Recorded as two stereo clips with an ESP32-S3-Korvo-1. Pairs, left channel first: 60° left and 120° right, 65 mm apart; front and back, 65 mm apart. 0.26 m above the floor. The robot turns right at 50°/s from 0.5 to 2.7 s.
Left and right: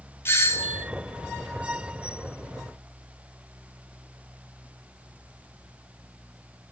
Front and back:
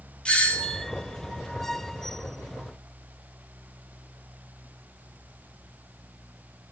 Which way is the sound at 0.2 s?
65° left.